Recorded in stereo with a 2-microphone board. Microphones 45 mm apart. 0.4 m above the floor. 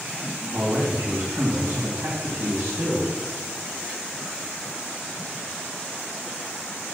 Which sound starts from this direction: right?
A man speaking, at 0.5 s.